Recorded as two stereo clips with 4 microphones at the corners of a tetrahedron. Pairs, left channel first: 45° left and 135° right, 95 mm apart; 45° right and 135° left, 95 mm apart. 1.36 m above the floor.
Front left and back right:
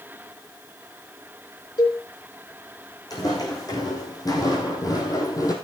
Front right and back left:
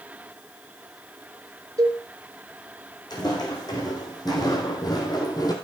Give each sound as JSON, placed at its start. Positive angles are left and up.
{"t": 1.8, "sound": "a cowbell", "azimuth_deg": 85, "distance_m": 3.5}
{"t": 3.1, "sound": "footsteps", "azimuth_deg": 0, "distance_m": 4.5}